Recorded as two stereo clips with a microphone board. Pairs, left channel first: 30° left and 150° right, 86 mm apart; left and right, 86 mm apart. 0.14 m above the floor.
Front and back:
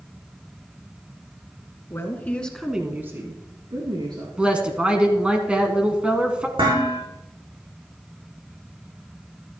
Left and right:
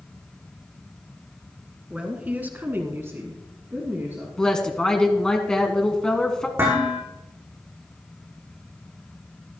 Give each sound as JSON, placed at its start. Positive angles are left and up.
{"t": 1.9, "sound": "a woman speaking", "azimuth_deg": -15, "distance_m": 1.9}
{"t": 4.4, "sound": "a woman speaking", "azimuth_deg": 155, "distance_m": 1.3}
{"t": 6.6, "sound": "dishes clattering", "azimuth_deg": -150, "distance_m": 6.0}